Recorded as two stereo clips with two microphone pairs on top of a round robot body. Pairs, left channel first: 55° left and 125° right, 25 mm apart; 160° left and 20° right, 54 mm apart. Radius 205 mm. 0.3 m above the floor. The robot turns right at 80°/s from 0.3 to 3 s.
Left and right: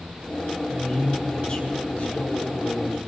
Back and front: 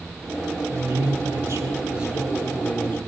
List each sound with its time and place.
0.7 s a man speaking: 70° right, 4.5 m; by 3.1 s 115° left, 4.5 m